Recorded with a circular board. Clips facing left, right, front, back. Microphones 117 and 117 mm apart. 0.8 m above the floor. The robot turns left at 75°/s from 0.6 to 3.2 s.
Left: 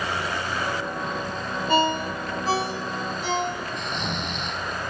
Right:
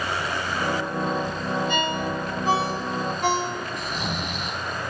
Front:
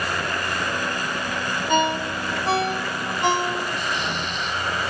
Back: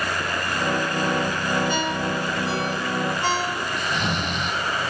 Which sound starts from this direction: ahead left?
A ringtone, at 1.7 s.